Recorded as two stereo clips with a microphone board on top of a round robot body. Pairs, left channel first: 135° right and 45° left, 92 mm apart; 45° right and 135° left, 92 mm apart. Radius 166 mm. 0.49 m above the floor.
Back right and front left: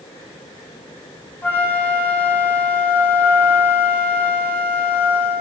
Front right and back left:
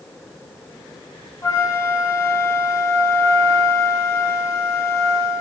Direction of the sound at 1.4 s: 80° right.